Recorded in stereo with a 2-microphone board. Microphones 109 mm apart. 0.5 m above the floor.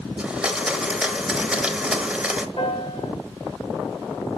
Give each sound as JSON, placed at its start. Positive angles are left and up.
{"t": 0.2, "sound": "a blender", "side_deg": -10, "distance_m": 0.8}
{"t": 2.6, "sound": "a piano", "side_deg": 60, "distance_m": 3.0}